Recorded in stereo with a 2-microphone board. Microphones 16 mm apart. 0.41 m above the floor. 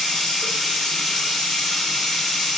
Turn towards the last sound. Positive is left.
turn(degrees=55)  # may be behind; listen again after turning